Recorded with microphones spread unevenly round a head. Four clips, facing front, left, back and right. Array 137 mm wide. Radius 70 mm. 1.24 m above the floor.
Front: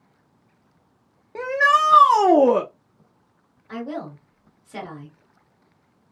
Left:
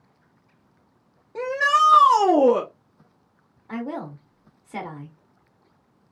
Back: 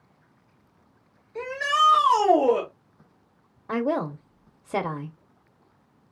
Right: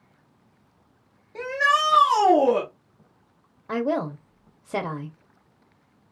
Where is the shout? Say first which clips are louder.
Left 2 dB, front 5 dB; 15° left, 1.0 m.